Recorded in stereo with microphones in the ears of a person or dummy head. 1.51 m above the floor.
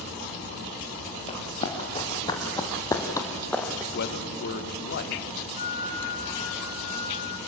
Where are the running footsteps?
40° left (ahead or behind), 4.5 m; by 3.8 s 5° left (ahead or behind), 2 m.